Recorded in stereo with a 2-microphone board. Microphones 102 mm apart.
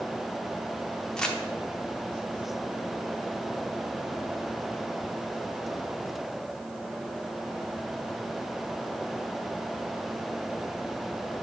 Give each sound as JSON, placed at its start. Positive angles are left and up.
{"t": 1.2, "sound": "crumpling", "side_deg": 5, "distance_m": 0.9}